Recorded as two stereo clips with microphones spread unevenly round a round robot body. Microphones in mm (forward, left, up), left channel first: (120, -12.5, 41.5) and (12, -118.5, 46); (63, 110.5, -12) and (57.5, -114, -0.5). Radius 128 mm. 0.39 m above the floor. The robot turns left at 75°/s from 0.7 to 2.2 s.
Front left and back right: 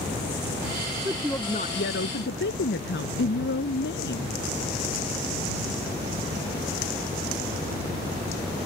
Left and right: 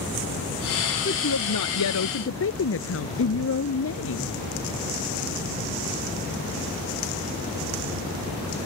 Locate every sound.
1.1 s a woman speaking: 145° left; by 4.4 s 60° left